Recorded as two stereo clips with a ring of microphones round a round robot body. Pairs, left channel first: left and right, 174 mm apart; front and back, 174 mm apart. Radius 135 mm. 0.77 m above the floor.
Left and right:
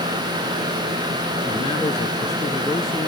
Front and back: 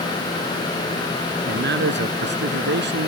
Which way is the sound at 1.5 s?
165° left.